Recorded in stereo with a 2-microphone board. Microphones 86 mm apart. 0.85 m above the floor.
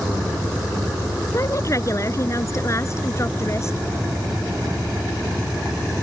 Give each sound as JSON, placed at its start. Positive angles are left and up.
{"t": 1.3, "sound": "a woman speaking", "side_deg": 40}